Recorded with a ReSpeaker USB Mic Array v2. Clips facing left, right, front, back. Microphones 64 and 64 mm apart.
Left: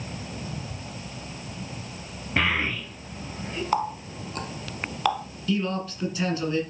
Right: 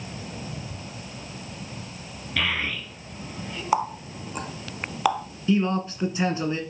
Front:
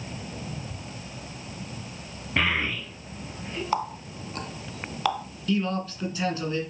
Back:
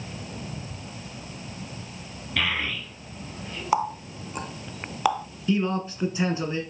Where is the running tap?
145° right, 0.7 m.